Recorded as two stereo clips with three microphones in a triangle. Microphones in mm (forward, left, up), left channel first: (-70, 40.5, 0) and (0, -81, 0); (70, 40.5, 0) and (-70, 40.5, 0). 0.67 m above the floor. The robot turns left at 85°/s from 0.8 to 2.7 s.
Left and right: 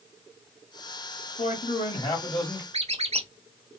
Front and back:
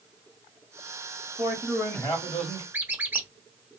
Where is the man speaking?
120° left, 1.5 m; by 2.6 s 10° left, 1.5 m.